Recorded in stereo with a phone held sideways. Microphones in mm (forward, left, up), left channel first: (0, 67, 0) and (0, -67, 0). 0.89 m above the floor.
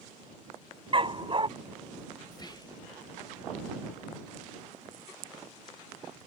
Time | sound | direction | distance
0.9 | a dog barking | 40° right (ahead or behind) | ?
2.3 | whispering | 30° left (ahead or behind) | ?